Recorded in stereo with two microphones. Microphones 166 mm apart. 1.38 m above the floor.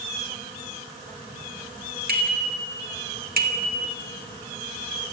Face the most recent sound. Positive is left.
turn(degrees=-60)  # may be behind; listen again after turning